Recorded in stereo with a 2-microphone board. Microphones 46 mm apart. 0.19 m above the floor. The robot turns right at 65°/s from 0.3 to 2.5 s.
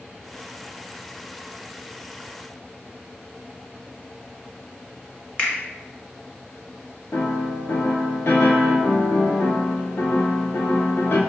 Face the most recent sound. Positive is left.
turn(degrees=60)  # may be behind; listen again after turning